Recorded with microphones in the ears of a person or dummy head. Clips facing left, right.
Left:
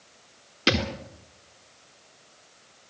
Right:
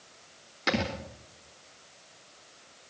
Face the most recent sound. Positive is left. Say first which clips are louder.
# left 4 dB
turn(degrees=50)  # may be behind; listen again after turning